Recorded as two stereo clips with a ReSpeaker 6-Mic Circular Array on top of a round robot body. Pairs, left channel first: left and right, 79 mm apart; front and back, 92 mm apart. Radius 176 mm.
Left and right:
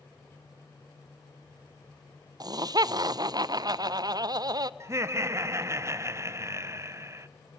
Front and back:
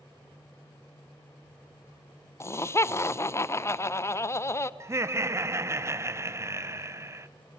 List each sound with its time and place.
2.4 s laughter: 60° right, 0.6 m
4.8 s laughter: 130° right, 0.6 m